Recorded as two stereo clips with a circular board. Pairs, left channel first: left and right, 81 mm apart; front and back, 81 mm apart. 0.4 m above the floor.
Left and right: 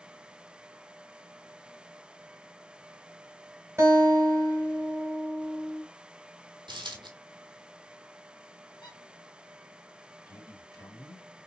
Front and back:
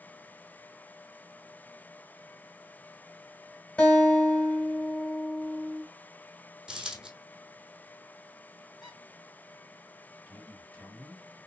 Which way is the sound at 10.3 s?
70° left.